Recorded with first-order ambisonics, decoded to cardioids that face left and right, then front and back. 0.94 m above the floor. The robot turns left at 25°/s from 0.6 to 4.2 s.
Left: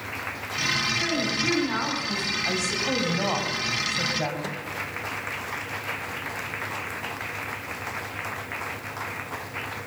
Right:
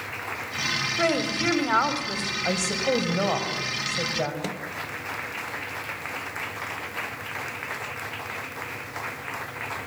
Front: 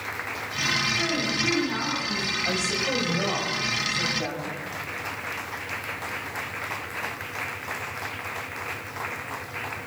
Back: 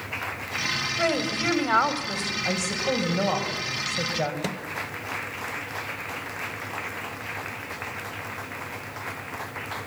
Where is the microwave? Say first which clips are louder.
Right 1 dB, back 1 dB; 155° right, 1.0 m.